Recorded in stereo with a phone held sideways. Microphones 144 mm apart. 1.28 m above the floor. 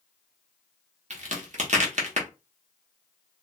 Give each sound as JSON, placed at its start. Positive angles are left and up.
{"t": 1.1, "sound": "a crack", "side_deg": -55, "distance_m": 0.8}